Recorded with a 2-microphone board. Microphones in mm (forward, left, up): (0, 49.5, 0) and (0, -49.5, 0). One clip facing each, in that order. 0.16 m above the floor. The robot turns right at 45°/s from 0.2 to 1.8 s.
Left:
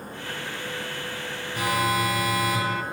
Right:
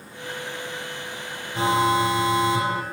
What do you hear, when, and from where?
1.6 s an alarm: 30° right (ahead or behind), 2.0 m; by 2.8 s 25° right (ahead or behind), 2.0 m